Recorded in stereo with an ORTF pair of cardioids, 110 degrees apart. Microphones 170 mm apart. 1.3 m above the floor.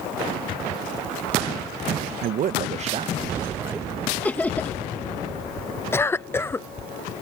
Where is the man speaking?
65° right; by 3.9 s 15° right.